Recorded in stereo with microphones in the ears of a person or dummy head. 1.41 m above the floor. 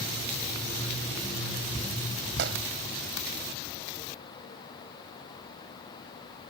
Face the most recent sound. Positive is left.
turn(degrees=-80)